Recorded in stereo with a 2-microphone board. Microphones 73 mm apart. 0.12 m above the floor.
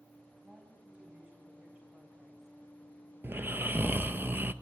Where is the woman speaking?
25° right (ahead or behind), 6 m; by 2.6 s 30° right (ahead or behind), 7.5 m.